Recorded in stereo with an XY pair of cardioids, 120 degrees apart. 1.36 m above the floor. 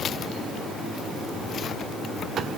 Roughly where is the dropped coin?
I don't hear a dropped coin.